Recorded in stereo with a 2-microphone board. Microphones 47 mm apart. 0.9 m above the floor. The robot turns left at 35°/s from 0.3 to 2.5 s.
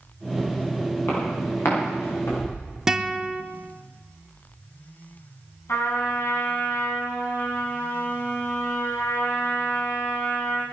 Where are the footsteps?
50° left (ahead or behind), 9.5 m; by 2.6 s 75° left (ahead or behind), 9 m.